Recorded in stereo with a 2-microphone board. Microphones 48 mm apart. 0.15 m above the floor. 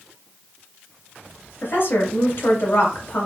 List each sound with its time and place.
1.6 s a woman speaking: 50° left (ahead or behind), 2.5 m